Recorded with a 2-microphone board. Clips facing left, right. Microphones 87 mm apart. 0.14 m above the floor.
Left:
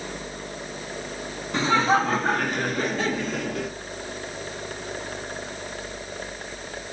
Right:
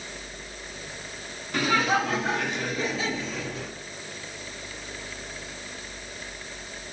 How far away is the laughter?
About 1.7 m.